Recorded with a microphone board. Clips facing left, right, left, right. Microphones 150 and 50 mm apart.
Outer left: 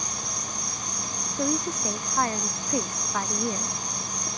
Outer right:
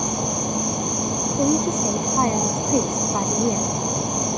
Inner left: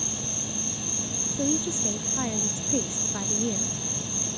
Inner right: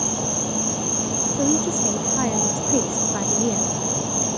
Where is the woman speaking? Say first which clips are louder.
Outer right 7 dB, inner right 6 dB; 25° right (ahead or behind).